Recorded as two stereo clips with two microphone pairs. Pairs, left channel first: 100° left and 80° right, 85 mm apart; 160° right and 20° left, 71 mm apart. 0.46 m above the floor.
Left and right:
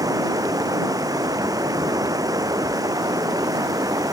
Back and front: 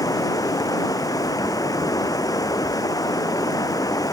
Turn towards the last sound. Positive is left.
turn(degrees=-130)